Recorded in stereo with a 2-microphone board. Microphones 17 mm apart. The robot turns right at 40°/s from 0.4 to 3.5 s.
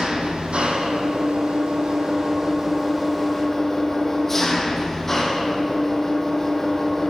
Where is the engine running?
105° right, 2.5 m; by 7.1 s 20° left, 2.5 m.